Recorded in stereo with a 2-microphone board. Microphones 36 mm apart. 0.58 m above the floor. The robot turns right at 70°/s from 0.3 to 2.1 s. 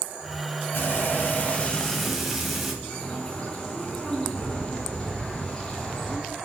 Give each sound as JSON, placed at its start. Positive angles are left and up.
{"t": 0.7, "sound": "frying", "azimuth_deg": 85, "distance_m": 3.5}
{"t": 2.8, "sound": "a bird", "side_deg": 25, "distance_m": 4.0}